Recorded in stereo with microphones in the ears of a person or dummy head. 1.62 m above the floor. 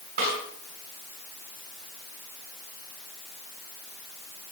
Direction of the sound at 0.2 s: 55° right (ahead or behind).